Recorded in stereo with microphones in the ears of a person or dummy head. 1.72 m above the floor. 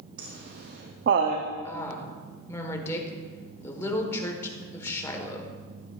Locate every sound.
0.2 s laughter: 55° right (ahead or behind), 0.7 m
1.6 s a woman speaking: 20° left (ahead or behind), 1.3 m